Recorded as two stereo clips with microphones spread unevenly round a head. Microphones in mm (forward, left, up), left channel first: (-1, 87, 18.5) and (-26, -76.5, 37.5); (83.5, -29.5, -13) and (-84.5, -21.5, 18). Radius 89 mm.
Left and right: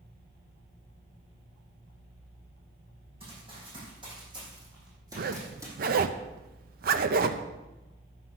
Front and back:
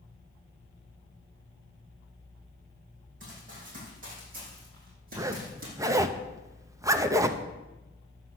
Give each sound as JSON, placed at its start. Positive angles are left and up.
{"t": 3.2, "sound": "running footsteps", "azimuth_deg": -150, "distance_m": 6.0}
{"t": 5.2, "sound": "a zipper", "azimuth_deg": -120, "distance_m": 0.6}